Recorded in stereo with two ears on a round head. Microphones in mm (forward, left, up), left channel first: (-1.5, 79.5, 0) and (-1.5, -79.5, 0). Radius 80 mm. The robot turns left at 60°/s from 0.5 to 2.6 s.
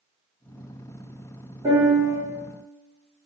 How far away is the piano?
About 1.9 m.